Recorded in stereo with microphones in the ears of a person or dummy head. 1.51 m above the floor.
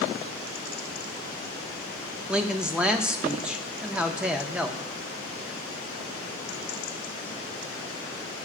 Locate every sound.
2.3 s a man speaking: centre (ahead or behind), 0.5 m